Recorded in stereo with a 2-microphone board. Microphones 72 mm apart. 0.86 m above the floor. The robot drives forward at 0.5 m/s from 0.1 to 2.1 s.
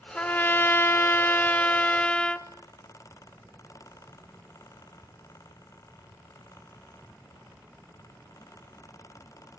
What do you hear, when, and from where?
0.1 s a trumpet: 20° left (ahead or behind), 0.6 m; by 2.5 s 15° left (ahead or behind), 0.7 m